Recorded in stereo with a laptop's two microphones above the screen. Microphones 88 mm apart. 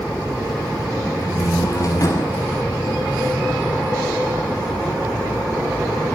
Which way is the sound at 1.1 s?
45° left (ahead or behind).